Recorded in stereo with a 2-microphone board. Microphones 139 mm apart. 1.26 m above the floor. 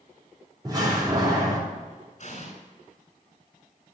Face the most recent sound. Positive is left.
turn(degrees=55)  # may be behind; listen again after turning